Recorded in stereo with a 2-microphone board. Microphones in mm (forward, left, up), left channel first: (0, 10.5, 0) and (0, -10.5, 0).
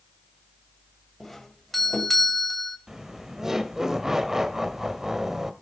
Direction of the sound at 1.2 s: 10° left (ahead or behind).